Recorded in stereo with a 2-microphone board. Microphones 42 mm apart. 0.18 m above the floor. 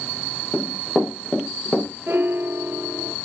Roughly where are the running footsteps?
Left.